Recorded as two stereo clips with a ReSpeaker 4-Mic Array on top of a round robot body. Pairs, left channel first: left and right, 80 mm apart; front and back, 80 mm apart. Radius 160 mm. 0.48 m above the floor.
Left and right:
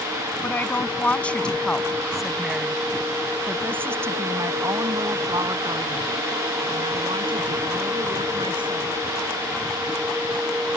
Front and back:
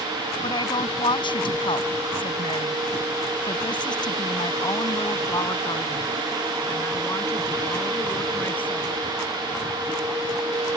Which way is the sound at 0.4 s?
25° left.